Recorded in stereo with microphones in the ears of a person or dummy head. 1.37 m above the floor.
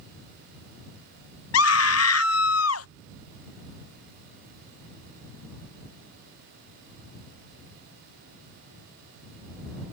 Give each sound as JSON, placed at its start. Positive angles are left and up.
{"t": 1.5, "sound": "a scream", "side_deg": 70}